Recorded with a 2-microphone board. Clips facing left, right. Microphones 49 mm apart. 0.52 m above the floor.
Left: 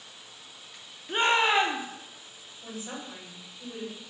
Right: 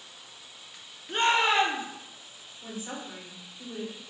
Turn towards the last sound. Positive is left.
turn(degrees=-35)  # may be behind; listen again after turning